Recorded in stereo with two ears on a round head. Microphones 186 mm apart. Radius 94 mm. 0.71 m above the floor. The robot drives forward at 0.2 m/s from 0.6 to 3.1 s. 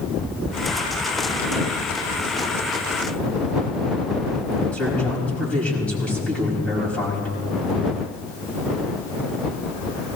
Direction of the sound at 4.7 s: 5° left (ahead or behind).